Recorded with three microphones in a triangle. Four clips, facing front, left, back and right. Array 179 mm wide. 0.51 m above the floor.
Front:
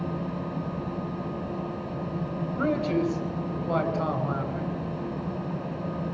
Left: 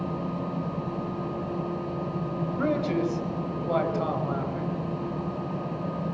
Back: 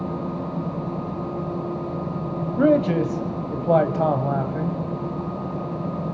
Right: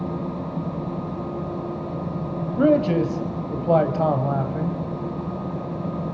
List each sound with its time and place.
2.6 s a man speaking: 140° right, 3.5 m